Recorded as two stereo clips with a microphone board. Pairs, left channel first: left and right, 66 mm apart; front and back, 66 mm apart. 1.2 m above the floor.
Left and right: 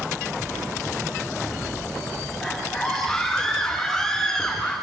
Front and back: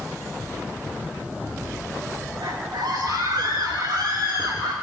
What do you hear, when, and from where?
2.4 s a scream: 170° left, 7.5 m; by 4.7 s 165° left, 6 m